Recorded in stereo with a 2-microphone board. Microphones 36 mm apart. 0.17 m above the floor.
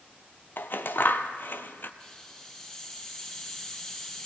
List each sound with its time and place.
0.6 s scissors: 70° left (ahead or behind), 0.9 m
2.0 s a hiss: 15° left (ahead or behind), 2.5 m